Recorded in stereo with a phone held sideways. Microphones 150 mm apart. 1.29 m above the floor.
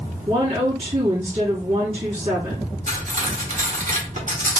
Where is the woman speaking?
45° right (ahead or behind), 3 m.